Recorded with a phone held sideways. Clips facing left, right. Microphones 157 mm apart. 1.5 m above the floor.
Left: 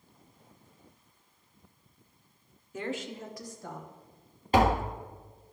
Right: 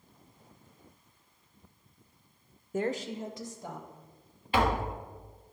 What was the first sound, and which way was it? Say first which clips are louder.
A woman speaking: right 4 dB; 50° right (ahead or behind).